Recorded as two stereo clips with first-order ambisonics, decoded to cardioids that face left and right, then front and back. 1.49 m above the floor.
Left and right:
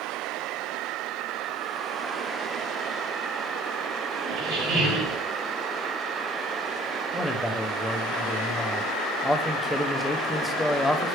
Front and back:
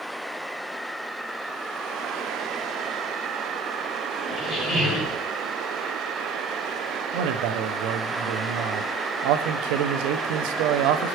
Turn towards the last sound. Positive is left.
turn(degrees=180)